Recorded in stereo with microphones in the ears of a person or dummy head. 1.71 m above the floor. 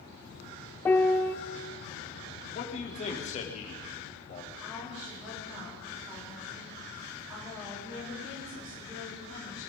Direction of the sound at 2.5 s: 30° left (ahead or behind).